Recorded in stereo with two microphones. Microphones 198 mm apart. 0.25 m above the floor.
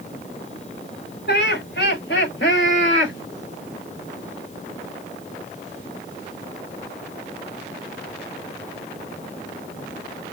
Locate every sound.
1.3 s laughter: 60° left (ahead or behind), 4 m; by 3.1 s 70° left (ahead or behind), 3.5 m